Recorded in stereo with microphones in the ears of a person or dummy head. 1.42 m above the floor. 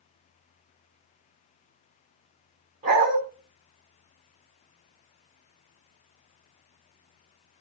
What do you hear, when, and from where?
2.8 s a dog barking: 45° right (ahead or behind), 3 m